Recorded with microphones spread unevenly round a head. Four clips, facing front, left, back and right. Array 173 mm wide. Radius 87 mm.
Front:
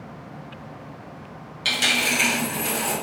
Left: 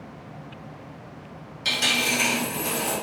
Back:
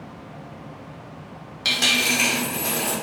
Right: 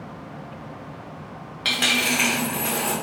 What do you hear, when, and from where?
1.6 s a dropped coin: 130° right, 0.7 m